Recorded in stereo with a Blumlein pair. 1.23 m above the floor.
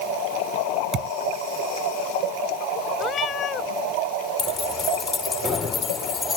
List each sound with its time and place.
0.9 s a thud: 30° right
3.0 s a cat meowing: 25° left
4.4 s keys jangling: 20° left